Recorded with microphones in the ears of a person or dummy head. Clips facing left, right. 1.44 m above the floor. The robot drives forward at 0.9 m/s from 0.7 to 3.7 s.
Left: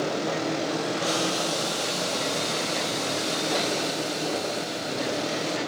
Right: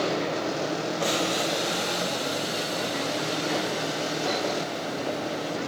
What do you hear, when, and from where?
1.0 s boiling: 25° right (ahead or behind), 1.3 m; by 5.6 s 10° right (ahead or behind), 3.5 m